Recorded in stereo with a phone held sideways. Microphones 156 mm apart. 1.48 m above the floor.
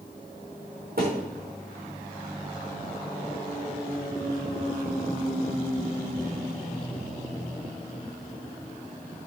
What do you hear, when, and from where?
1.0 s a thud: 70° right (ahead or behind), 6 m